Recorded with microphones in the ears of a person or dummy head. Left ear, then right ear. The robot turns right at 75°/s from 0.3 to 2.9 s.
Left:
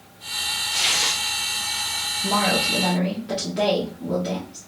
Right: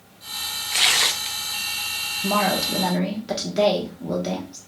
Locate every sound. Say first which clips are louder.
0.7 s tearing paper: right 4 dB; 75° right, 0.5 m; by 1.4 s 25° right, 0.5 m
2.2 s a woman speaking: left 1 dB; 85° right, 0.7 m; by 4.6 s 35° right, 0.7 m